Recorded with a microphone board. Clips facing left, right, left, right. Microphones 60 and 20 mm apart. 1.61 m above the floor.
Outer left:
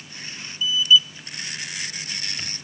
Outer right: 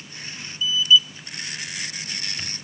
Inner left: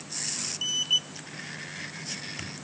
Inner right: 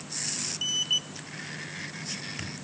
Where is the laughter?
No laughter in this recording.